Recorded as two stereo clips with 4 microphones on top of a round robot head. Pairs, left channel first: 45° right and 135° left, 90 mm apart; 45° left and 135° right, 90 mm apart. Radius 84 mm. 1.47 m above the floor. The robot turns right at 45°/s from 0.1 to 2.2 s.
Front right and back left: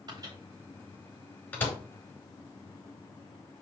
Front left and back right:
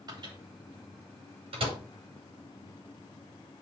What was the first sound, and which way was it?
A microwave, straight behind.